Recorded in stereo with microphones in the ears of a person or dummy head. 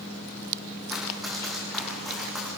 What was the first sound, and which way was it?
Running footsteps, centre (ahead or behind).